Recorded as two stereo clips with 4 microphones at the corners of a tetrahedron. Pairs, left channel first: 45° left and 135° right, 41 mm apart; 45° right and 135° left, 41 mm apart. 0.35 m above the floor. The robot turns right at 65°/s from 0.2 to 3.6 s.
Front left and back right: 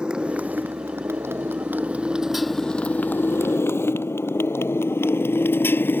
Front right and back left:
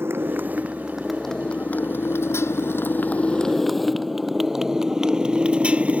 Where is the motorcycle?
160° left; by 6.0 s 80° left.